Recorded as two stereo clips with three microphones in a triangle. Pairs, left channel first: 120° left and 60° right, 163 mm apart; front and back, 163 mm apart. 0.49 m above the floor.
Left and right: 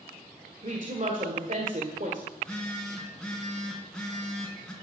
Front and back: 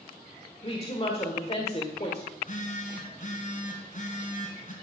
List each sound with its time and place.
0.6 s a woman speaking: 40° right, 1.8 m
2.3 s a phone buzzing: 35° left, 3 m